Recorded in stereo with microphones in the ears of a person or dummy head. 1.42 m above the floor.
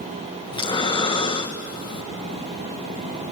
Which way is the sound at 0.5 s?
25° left (ahead or behind).